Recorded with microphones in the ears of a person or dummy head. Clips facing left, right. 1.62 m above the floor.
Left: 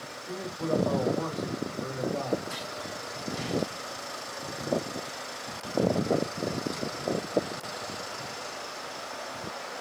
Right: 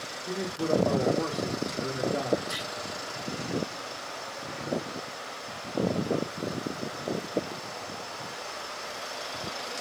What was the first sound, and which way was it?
A man speaking, 55° right (ahead or behind).